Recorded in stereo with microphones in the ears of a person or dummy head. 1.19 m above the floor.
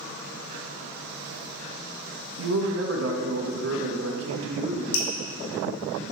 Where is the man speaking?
80° right, 1.1 m.